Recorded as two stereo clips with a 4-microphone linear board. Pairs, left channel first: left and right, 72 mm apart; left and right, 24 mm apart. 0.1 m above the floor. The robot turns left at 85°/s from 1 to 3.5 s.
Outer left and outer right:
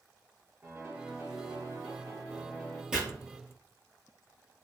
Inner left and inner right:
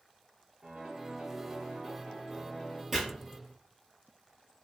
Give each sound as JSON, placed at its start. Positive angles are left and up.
{"t": 0.6, "sound": "a piano", "azimuth_deg": -35, "distance_m": 1.1}
{"t": 2.9, "sound": "chopping", "side_deg": -10, "distance_m": 1.1}